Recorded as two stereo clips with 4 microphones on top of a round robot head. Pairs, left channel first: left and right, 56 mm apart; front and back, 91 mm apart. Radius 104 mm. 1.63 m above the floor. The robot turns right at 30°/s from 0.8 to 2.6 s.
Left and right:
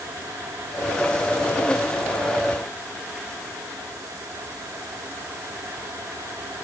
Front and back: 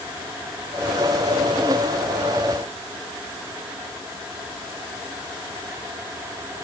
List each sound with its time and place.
Only background noise.